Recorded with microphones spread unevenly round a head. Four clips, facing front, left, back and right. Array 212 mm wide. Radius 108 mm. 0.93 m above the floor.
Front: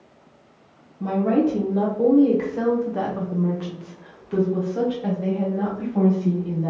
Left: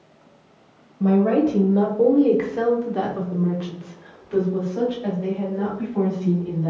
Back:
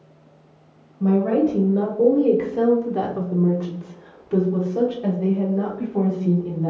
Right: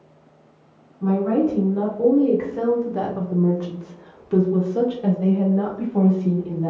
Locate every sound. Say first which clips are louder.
1.0 s a woman speaking: left 2 dB, back 2 dB; 85° left, 1.3 m; by 6.7 s 105° right, 2.5 m